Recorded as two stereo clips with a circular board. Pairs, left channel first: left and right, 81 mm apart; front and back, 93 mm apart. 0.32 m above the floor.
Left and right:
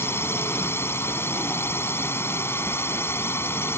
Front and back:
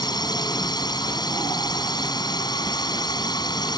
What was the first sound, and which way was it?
A drone, 35° left.